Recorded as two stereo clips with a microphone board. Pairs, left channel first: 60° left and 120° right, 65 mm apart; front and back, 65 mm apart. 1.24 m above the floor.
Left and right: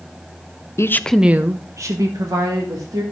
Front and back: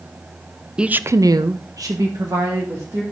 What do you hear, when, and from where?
0.8 s a woman speaking: 100° left, 0.6 m; by 3.0 s 140° right, 2.5 m